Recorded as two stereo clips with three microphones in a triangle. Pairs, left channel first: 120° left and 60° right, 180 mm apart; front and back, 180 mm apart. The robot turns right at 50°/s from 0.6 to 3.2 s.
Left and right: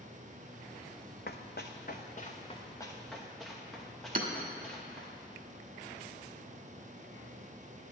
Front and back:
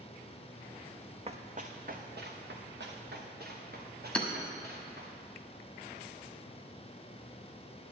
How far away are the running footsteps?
About 0.7 m.